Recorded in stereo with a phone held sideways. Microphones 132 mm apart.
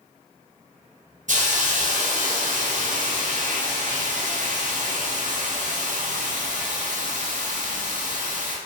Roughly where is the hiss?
Right.